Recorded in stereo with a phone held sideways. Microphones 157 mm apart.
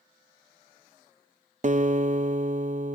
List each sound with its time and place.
1.6 s a guitar: 50° right (ahead or behind), 0.7 m